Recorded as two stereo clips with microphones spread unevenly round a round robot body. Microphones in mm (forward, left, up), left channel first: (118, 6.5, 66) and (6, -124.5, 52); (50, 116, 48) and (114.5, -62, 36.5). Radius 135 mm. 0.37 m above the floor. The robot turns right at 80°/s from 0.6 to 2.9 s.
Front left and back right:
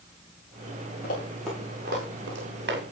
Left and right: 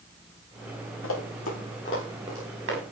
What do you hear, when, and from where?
1.0 s running footsteps: 100° left, 8 m; by 2.8 s 105° right, 7.5 m